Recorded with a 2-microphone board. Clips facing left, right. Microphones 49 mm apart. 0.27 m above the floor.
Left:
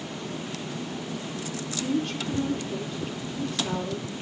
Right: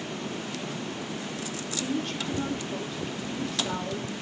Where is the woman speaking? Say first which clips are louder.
Left 3 dB; centre (ahead or behind), 5.5 m.